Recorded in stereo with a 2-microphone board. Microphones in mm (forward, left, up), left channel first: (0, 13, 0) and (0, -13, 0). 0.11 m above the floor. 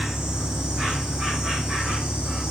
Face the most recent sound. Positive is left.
turn(degrees=-30)  # may be behind; listen again after turning